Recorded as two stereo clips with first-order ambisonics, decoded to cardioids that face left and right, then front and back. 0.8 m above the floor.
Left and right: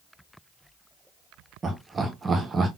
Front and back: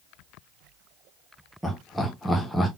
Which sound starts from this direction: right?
Laughter, at 1.6 s.